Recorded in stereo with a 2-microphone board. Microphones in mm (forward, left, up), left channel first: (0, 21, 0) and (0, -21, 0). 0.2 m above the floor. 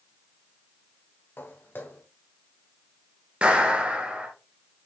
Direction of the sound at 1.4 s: 60° left (ahead or behind).